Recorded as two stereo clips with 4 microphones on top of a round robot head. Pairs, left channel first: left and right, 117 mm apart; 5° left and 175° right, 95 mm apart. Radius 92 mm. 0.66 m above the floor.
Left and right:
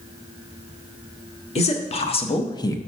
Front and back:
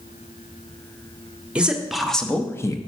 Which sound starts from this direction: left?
A man speaking, at 1.6 s.